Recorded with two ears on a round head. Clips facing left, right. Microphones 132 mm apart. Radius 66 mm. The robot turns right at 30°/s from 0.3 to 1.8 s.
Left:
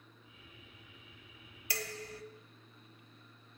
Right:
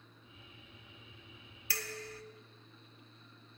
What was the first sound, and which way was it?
Dishes clattering, 20° left (ahead or behind).